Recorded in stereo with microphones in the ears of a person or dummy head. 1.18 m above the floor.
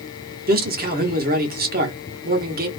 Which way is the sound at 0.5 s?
40° right (ahead or behind).